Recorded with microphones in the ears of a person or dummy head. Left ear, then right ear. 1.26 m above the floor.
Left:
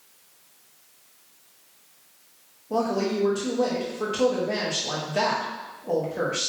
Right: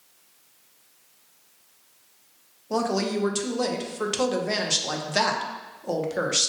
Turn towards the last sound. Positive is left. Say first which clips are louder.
# even
turn(degrees=-55)  # may be behind; listen again after turning